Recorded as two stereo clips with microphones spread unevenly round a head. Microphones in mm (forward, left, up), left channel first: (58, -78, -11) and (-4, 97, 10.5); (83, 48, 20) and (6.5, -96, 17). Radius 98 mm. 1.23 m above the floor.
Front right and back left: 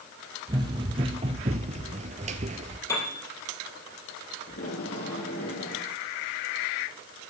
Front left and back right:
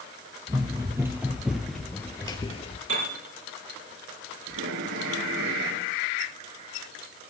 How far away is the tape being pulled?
About 6.5 m.